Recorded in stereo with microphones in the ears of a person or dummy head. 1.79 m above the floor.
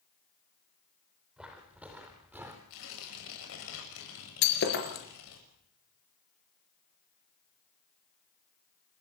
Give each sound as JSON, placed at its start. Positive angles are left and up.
{"t": 1.4, "sound": "footsteps", "side_deg": -5, "distance_m": 4.5}
{"t": 2.7, "sound": "tearing paper", "side_deg": 75, "distance_m": 7.0}
{"t": 4.4, "sound": "breaking glass", "side_deg": 55, "distance_m": 4.5}